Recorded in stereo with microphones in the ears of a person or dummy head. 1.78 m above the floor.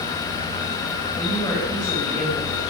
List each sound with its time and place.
1.2 s a woman speaking: 25° left (ahead or behind), 9.5 m